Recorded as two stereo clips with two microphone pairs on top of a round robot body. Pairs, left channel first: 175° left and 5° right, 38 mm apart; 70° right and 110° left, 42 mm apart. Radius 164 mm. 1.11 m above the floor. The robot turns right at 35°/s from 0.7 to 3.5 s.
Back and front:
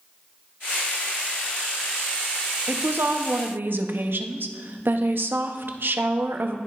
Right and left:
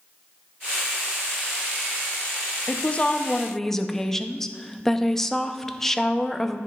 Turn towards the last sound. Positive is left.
turn(degrees=10)